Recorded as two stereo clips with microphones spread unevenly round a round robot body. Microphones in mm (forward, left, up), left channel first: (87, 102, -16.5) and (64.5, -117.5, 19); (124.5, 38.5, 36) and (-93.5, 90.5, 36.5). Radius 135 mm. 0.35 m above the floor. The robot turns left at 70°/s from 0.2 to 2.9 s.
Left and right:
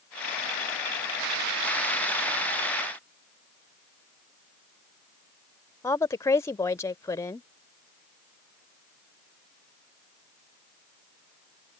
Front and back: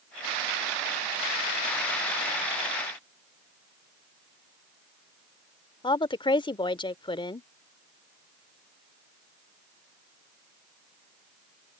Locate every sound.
5.8 s a woman speaking: 35° left